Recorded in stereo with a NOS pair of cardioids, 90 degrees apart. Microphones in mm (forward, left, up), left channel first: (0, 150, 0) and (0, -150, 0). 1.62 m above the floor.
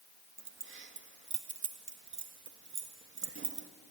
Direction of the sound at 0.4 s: 40° right.